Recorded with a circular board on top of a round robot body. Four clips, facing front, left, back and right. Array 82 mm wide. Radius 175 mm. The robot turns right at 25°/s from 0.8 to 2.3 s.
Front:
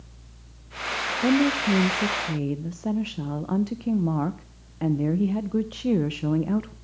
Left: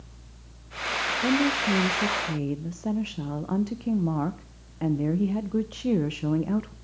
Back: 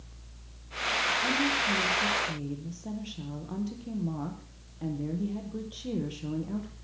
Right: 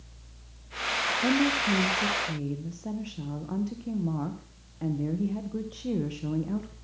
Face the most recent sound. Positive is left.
turn(degrees=35)